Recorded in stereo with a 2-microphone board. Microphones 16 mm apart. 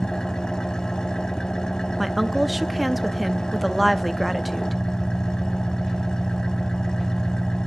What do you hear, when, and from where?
0.0 s an engine running: 60° left (ahead or behind), 0.8 m
2.0 s a woman speaking: centre (ahead or behind), 0.6 m